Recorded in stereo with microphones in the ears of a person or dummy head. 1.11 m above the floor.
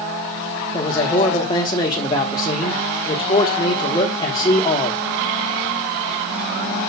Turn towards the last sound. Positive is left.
turn(degrees=20)  # may be behind; listen again after turning